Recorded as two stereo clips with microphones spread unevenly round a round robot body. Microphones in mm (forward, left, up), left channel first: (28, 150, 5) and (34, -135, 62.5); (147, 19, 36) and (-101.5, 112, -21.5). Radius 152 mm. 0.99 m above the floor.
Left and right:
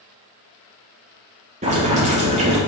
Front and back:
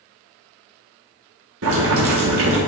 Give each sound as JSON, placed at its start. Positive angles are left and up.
{"t": 1.6, "sound": "boiling", "azimuth_deg": -160, "distance_m": 1.5}